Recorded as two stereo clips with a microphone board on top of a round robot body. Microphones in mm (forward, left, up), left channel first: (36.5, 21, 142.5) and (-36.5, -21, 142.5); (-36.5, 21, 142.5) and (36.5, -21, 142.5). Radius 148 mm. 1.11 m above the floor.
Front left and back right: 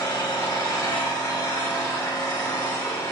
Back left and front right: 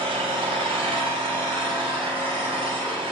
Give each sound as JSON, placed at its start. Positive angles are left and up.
{"t": 0.0, "sound": "an engine running", "azimuth_deg": -30, "distance_m": 3.0}